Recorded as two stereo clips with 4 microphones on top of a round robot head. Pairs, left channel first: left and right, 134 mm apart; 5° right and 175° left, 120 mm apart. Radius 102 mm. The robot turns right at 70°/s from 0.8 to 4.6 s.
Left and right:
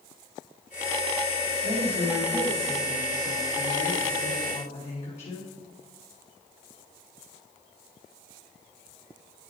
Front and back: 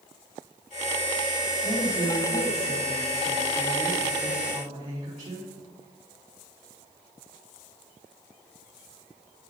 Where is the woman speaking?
80° right, 2.0 m; by 5.5 s 130° left, 2.0 m.